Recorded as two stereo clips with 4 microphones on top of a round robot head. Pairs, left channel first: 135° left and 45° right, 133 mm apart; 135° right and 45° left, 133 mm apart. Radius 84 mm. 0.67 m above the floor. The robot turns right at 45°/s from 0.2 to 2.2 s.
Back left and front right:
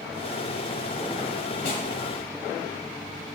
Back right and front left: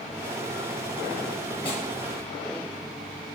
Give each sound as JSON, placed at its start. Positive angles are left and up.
{"t": 1.6, "sound": "a snare drum", "azimuth_deg": 175, "distance_m": 1.7}